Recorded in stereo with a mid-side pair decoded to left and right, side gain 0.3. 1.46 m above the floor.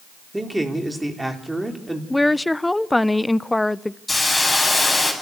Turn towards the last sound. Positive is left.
turn(degrees=20)